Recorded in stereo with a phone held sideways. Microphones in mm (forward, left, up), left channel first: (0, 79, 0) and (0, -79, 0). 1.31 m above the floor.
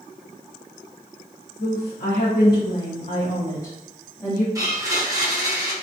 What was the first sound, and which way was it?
A woman speaking, 65° left (ahead or behind).